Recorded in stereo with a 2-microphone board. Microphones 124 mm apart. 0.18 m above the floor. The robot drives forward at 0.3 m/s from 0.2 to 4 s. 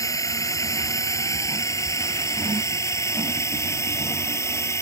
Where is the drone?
25° left (ahead or behind).